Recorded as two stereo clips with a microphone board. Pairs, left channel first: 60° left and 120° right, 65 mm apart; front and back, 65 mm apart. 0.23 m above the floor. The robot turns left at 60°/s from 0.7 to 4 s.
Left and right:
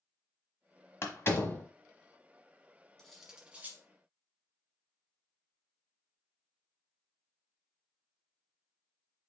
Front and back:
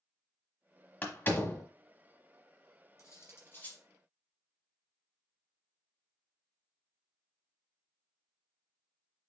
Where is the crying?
I don't hear crying.